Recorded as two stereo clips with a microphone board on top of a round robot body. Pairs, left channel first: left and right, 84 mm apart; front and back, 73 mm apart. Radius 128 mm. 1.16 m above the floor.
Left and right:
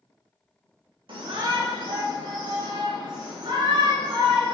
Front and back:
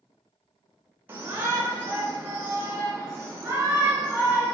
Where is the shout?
115° right, 1.6 m.